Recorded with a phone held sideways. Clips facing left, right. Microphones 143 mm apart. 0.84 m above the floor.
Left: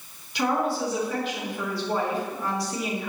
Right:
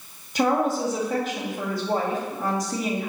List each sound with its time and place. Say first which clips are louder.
0.3 s a woman speaking: right 3 dB; 45° right (ahead or behind), 1.7 m